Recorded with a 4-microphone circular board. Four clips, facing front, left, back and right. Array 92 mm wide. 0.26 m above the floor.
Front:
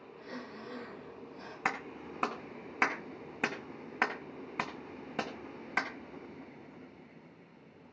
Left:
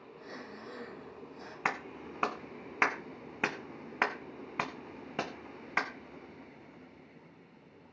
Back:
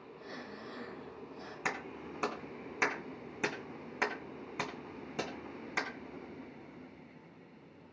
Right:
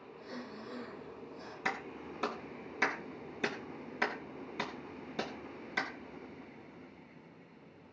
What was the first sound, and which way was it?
Breathing, 25° left.